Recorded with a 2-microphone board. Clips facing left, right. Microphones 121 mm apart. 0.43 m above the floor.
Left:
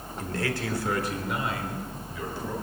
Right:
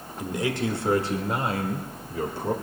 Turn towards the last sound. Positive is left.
turn(degrees=-50)  # may be behind; listen again after turning